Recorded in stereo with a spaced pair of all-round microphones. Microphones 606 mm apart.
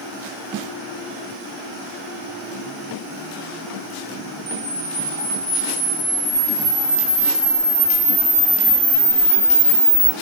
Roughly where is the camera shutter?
Centre.